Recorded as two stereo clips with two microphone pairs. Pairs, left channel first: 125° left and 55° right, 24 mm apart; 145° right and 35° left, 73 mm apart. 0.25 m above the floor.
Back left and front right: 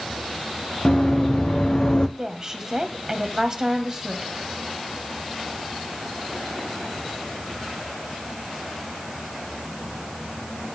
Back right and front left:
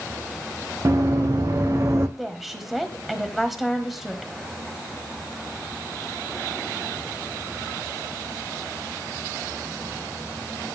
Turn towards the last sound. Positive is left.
turn(degrees=-50)